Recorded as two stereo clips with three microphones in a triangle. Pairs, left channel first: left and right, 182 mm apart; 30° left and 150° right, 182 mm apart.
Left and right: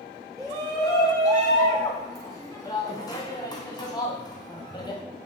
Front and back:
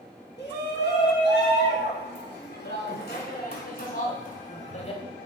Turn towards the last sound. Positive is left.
turn(degrees=45)